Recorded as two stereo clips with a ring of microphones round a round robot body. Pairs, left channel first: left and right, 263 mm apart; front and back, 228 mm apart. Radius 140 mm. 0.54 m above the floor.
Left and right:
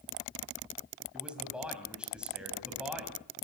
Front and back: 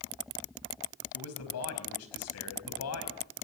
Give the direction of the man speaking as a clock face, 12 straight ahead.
12 o'clock.